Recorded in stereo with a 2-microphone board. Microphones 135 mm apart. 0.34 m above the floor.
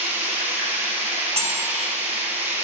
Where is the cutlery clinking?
50° right (ahead or behind), 0.8 m.